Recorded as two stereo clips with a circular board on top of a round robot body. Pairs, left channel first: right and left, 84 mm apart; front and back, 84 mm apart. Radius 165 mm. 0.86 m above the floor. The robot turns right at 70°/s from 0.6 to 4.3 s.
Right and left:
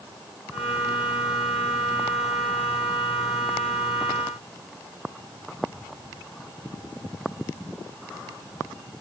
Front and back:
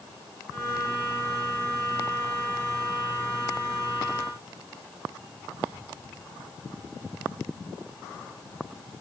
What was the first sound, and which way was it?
Only background noise.